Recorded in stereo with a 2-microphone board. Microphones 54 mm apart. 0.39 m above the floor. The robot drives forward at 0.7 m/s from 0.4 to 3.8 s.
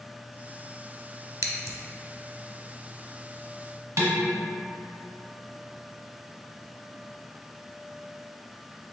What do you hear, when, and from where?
1.4 s scissors: 85° right, 0.5 m; by 1.8 s 70° right (ahead or behind), 0.6 m
4.0 s dishes clattering: 70° right (ahead or behind), 1.4 m